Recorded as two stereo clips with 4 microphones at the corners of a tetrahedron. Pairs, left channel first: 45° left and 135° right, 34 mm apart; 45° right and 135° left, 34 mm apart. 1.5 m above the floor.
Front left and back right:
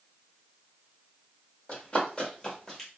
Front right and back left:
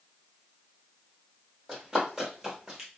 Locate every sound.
1.7 s running footsteps: 55° left, 1.8 m; by 2.9 s 85° left, 1.5 m